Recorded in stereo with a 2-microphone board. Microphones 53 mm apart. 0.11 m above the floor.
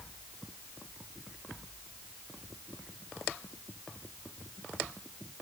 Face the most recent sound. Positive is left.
No sound to turn to.